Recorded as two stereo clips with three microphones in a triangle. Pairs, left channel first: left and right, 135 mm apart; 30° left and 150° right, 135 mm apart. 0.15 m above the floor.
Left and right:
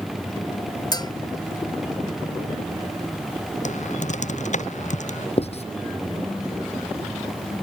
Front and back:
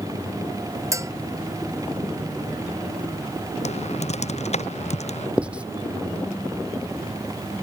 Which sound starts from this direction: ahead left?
Typing on a keyboard, at 3.6 s.